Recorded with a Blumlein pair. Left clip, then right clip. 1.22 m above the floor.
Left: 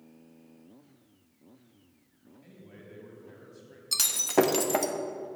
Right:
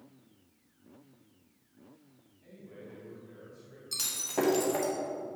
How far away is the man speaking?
About 3.5 m.